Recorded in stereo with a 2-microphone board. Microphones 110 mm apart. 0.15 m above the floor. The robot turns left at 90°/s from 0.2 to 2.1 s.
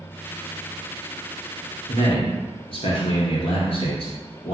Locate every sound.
1.9 s a man speaking: 60° left (ahead or behind), 2.0 m